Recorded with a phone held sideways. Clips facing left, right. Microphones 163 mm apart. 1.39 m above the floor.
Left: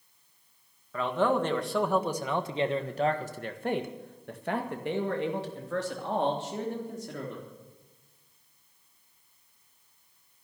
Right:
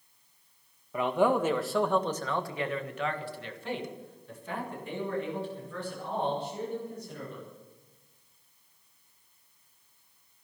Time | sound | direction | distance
0.9 | a man speaking | 15° right (ahead or behind) | 1.8 m